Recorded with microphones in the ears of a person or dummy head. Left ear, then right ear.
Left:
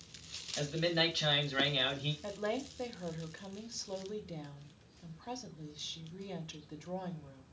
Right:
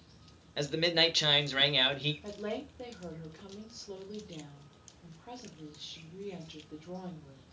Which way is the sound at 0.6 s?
30° right (ahead or behind).